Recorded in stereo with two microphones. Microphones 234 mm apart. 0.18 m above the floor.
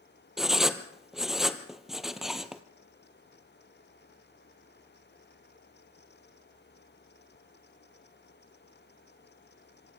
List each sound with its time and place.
0.4 s writing: centre (ahead or behind), 1.2 m